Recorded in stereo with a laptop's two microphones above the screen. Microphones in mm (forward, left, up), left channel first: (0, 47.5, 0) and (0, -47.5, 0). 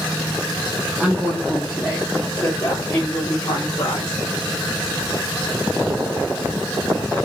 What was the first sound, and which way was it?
A woman speaking, 10° right (ahead or behind).